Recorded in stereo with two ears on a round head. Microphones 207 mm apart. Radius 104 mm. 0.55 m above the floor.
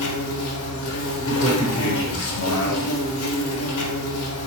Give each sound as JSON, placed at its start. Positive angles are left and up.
{"t": 0.0, "sound": "an insect", "side_deg": 65, "distance_m": 1.2}
{"t": 1.2, "sound": "a man speaking", "side_deg": 50, "distance_m": 1.5}